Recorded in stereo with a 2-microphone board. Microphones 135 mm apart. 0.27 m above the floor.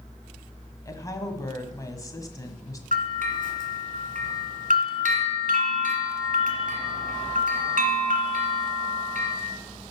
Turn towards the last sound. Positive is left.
turn(degrees=-65)  # may be behind; listen again after turning